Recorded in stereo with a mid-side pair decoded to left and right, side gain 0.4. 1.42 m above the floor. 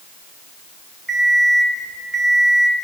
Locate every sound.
1.1 s an alarm clock: 30° right, 4 m